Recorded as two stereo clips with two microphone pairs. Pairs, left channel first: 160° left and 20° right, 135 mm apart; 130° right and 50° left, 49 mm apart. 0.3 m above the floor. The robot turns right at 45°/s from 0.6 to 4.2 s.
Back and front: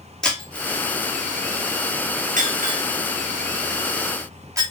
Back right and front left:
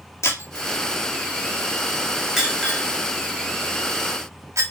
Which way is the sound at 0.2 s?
115° right.